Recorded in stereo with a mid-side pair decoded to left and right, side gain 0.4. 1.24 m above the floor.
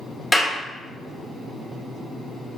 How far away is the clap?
About 1.8 m.